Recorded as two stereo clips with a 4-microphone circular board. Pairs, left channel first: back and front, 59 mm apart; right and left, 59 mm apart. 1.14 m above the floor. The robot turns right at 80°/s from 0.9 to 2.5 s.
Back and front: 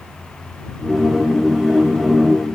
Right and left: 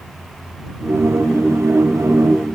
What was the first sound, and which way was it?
Only background noise.